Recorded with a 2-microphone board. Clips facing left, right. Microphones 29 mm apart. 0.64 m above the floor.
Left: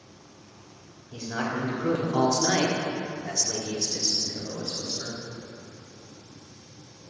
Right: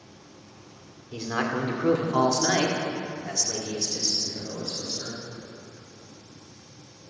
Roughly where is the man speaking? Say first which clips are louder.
Right 2 dB; right.